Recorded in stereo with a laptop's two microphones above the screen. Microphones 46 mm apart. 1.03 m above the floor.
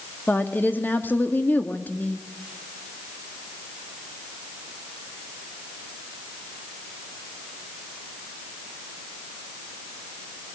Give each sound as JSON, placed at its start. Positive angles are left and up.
{"t": 0.3, "sound": "a woman speaking", "side_deg": 45, "distance_m": 1.9}